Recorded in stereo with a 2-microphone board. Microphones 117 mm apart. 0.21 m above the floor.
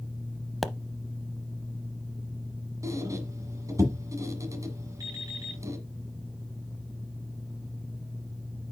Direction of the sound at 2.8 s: 25° right (ahead or behind).